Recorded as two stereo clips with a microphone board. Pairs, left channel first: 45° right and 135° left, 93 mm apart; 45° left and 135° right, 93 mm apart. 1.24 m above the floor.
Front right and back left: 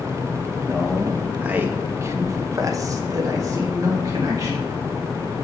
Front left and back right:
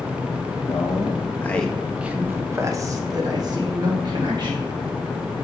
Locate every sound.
0.7 s a man speaking: 40° left, 0.8 m; by 4.7 s 170° right, 2.0 m